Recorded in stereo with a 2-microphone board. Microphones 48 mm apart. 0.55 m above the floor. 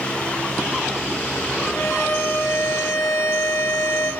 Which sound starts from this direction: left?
A violin, at 1.6 s.